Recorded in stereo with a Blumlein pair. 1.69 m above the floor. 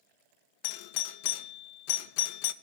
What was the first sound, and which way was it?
A doorbell, 45° left.